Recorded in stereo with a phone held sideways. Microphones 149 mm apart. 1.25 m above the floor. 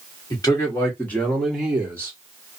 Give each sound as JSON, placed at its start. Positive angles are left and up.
{"t": 0.3, "sound": "a man speaking", "side_deg": 25, "distance_m": 1.6}